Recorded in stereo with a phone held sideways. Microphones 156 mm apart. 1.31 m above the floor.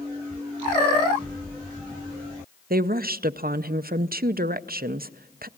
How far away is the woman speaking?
About 0.6 m.